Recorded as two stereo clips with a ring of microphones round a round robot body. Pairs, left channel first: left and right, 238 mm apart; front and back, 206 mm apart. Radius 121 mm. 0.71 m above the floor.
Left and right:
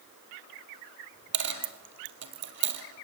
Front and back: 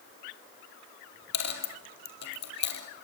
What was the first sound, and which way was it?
A dropped coin, 50° right.